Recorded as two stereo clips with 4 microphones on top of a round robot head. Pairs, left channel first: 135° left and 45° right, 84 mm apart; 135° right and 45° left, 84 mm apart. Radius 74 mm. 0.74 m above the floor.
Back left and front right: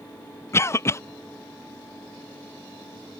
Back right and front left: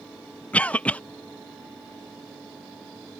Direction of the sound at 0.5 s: 160° left.